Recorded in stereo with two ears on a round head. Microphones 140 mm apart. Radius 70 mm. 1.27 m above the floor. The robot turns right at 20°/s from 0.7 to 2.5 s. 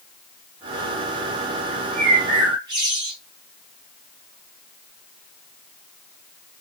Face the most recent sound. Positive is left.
turn(degrees=-25)  # may be behind; listen again after turning